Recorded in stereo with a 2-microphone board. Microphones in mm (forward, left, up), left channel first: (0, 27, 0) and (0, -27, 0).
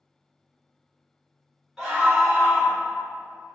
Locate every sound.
1.8 s a scream: 5° right (ahead or behind), 1.3 m